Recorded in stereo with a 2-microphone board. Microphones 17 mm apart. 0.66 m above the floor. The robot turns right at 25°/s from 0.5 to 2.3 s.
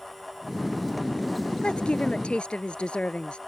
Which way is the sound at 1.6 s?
80° left.